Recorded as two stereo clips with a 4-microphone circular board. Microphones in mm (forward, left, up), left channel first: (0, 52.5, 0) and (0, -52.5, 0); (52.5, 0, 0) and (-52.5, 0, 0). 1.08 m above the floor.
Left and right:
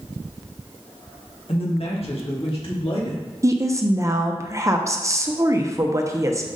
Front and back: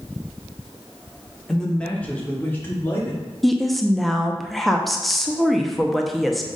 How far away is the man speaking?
About 1.4 m.